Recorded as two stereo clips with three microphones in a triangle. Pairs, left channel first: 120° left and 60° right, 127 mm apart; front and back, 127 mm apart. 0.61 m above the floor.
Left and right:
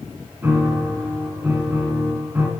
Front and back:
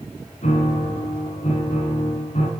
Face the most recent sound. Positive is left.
turn(degrees=15)